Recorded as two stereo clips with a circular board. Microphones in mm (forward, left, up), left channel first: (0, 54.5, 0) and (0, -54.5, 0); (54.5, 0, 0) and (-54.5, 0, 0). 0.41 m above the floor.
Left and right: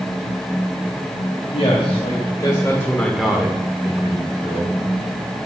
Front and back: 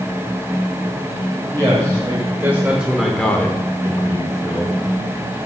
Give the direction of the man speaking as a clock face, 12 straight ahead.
8 o'clock.